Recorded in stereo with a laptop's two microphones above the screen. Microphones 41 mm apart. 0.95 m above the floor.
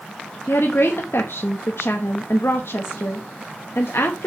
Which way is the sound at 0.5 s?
70° left (ahead or behind).